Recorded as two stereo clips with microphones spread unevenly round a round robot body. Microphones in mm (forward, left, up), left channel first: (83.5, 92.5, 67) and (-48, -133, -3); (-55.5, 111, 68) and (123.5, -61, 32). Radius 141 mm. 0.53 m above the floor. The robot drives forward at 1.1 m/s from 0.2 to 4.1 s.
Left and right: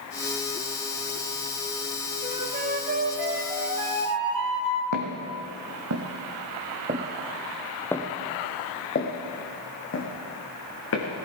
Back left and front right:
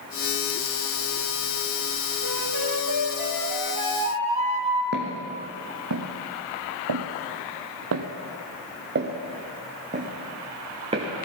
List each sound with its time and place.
2.2 s a flute: 55° right, 2.5 m; by 4.8 s 115° right, 2 m
4.9 s footsteps: 100° right, 2.0 m; by 11.1 s 25° left, 3 m